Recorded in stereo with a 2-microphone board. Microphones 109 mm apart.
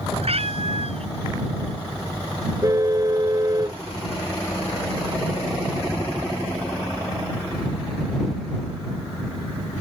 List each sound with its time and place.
0.2 s a cat meowing: 65° right (ahead or behind)
2.6 s a car horn: 35° right (ahead or behind)